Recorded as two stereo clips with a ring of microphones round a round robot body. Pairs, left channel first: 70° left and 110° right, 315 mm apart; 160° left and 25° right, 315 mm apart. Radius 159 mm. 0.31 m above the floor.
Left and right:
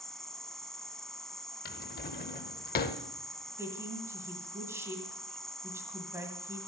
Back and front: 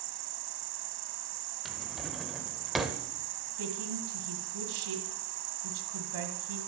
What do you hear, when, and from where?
0.0 s an insect: 20° right, 0.8 m
1.6 s a drawer: 65° left, 0.7 m
3.6 s a woman speaking: 30° right, 1.9 m